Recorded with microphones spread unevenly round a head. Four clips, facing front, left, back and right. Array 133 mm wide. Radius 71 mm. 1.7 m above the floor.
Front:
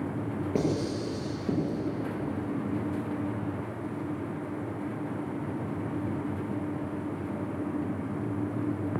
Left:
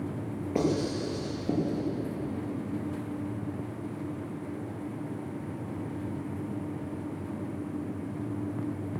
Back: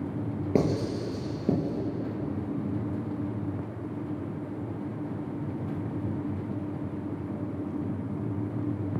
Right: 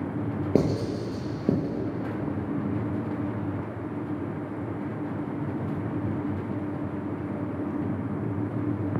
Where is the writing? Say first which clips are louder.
Right 2 dB, back 3 dB; 130° right, 5 m.